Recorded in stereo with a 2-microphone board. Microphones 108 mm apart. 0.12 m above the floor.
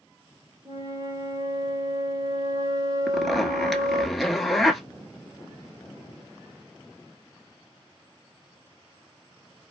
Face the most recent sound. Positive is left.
turn(degrees=0)  # may be behind; listen again after turning